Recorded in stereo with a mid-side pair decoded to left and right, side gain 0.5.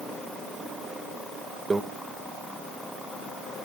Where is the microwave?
25° right, 1.9 m.